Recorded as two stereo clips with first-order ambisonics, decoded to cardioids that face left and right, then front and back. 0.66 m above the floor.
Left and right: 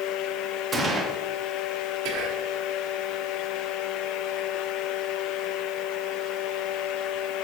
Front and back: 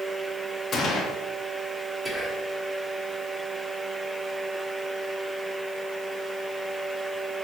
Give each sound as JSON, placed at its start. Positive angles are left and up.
{"t": 0.7, "sound": "a gunshot", "azimuth_deg": -40, "distance_m": 1.2}
{"t": 2.0, "sound": "whispering", "azimuth_deg": -95, "distance_m": 1.5}